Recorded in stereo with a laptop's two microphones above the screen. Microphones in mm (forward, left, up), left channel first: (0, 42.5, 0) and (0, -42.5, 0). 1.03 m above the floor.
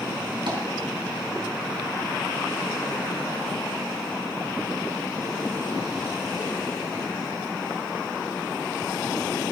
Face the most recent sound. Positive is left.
turn(degrees=-65)  # may be behind; listen again after turning